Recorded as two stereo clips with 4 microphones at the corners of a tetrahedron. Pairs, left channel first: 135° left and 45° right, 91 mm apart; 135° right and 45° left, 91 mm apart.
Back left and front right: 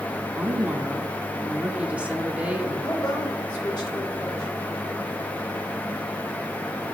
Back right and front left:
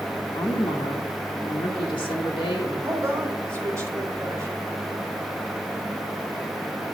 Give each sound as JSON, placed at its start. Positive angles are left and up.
{"t": 0.3, "sound": "a woman speaking", "azimuth_deg": -115, "distance_m": 1.8}
{"t": 2.8, "sound": "a woman speaking", "azimuth_deg": 100, "distance_m": 2.5}